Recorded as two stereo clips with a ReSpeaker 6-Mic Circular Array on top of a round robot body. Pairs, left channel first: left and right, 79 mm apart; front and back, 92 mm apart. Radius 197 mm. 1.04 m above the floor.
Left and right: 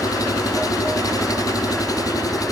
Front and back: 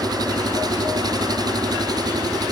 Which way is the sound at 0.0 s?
135° left.